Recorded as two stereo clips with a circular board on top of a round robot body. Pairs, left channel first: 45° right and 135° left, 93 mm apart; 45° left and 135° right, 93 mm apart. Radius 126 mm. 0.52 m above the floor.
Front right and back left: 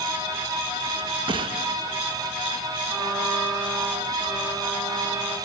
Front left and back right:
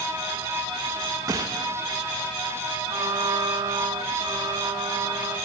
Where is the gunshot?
170° left, 1.3 m.